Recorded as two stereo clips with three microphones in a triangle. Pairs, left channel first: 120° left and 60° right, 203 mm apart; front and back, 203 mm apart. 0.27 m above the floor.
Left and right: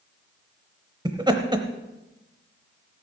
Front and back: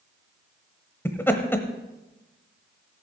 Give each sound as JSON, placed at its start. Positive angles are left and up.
{"t": 1.1, "sound": "laughter", "azimuth_deg": -60, "distance_m": 0.9}